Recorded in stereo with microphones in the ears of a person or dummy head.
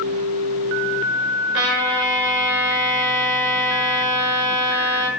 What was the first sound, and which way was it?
A trumpet, 70° right (ahead or behind).